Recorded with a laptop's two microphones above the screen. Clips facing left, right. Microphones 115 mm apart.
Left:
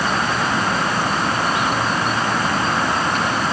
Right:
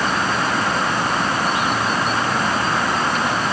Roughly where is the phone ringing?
No phone ringing in this recording.